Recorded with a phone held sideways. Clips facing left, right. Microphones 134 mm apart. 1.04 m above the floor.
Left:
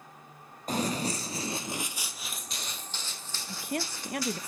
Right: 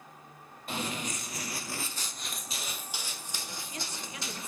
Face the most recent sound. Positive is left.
turn(degrees=60)  # may be behind; listen again after turning